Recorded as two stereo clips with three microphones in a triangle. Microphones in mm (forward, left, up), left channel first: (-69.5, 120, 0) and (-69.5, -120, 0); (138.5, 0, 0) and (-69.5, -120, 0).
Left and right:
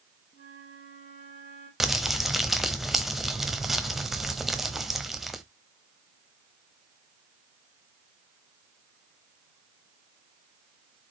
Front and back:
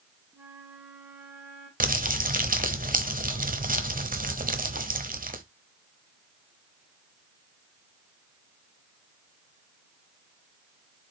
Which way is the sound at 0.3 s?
130° left.